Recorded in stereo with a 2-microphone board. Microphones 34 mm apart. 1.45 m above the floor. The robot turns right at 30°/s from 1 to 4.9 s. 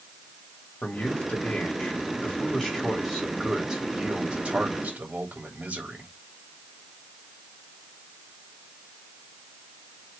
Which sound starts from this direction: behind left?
A man speaking, at 0.8 s.